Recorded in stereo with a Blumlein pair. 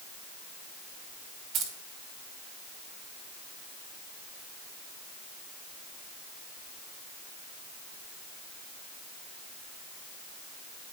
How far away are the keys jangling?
About 1.9 m.